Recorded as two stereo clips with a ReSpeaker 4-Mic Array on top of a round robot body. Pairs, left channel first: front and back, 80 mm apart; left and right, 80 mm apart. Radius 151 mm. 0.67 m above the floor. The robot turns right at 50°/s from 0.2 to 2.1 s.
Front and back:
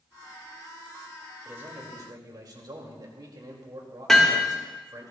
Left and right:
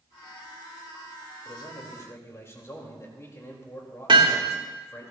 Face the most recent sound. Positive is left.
turn(degrees=-85)